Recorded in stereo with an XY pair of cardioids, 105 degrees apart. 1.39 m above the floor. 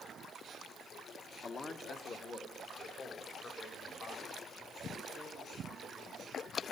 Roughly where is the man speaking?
Ahead left.